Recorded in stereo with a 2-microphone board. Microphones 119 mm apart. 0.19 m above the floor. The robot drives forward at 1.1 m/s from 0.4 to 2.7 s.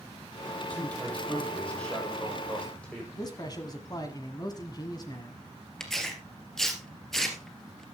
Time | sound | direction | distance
0.6 | a man speaking | 15° left (ahead or behind) | 6 m
3.1 | a man speaking | 35° left (ahead or behind) | 1.5 m
5.8 | tearing paper | 5° left (ahead or behind) | 2.5 m